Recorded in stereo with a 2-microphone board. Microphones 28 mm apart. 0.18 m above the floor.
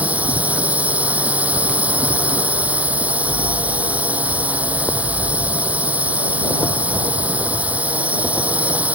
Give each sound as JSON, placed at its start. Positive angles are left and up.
{"t": 0.0, "sound": "a drone", "side_deg": -70}